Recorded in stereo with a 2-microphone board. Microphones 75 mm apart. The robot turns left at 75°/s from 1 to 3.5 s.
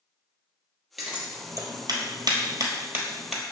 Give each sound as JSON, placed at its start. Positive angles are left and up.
{"t": 1.0, "sound": "scissors", "side_deg": -5, "distance_m": 1.1}